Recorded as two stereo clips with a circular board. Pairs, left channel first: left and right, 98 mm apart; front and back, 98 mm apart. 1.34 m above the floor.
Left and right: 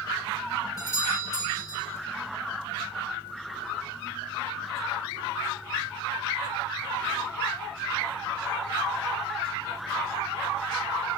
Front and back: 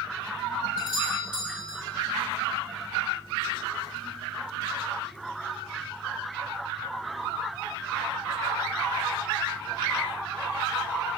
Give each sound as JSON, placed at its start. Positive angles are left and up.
{"t": 0.8, "sound": "a doorbell", "azimuth_deg": 35, "distance_m": 7.5}